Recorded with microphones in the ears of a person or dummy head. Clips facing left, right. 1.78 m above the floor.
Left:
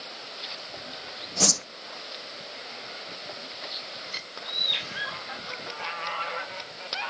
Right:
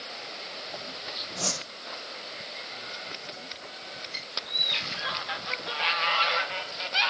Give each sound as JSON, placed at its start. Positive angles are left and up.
{"t": 1.4, "sound": "a whoosh", "side_deg": 70, "distance_m": 0.9}
{"t": 4.1, "sound": "a bird", "side_deg": 15, "distance_m": 10.0}